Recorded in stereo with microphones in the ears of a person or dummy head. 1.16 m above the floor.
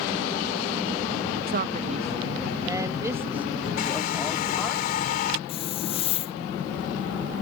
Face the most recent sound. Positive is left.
turn(degrees=40)  # may be behind; listen again after turning